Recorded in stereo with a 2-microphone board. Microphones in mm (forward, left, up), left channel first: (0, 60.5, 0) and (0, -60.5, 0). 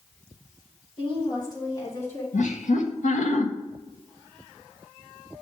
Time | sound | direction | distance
1.0 | a woman speaking | 40° left (ahead or behind) | 2.5 m
2.3 | laughter | 80° left | 1.1 m